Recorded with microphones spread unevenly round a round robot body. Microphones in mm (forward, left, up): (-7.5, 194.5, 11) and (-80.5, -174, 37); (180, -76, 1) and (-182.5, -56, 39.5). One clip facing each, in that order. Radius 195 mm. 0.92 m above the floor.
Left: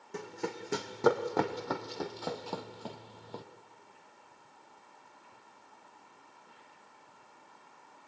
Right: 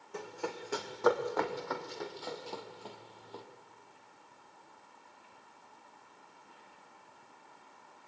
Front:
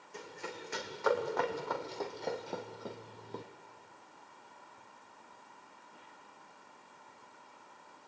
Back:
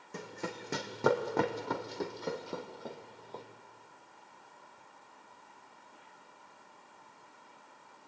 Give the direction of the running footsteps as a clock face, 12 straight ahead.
7 o'clock.